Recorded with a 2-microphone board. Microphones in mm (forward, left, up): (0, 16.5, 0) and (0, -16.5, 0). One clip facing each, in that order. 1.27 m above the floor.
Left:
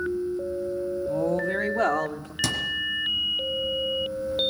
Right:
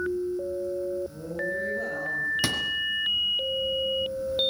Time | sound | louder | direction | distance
1.1 | a woman speaking | left 7 dB | 90° left | 2.5 m
2.4 | a thud | even | 20° right (ahead or behind) | 3 m